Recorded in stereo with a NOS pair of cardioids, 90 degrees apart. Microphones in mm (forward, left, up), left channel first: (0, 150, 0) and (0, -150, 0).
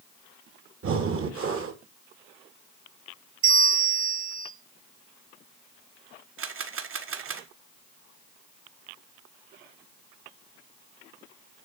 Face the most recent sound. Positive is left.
turn(degrees=-45)